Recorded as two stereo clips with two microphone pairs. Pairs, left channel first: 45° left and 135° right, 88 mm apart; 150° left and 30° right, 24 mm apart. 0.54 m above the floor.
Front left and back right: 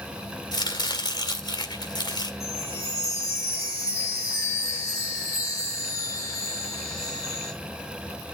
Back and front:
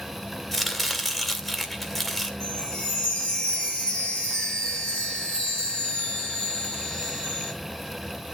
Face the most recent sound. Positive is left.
turn(degrees=100)